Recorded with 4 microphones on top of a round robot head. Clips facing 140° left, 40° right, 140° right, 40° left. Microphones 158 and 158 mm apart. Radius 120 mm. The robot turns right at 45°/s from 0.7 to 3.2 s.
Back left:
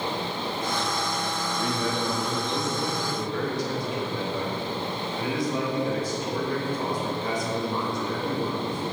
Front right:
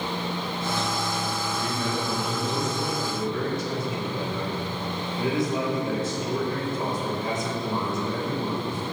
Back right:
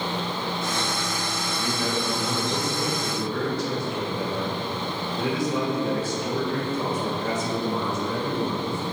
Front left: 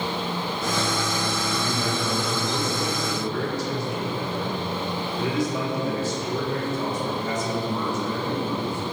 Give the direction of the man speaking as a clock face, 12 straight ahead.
6 o'clock.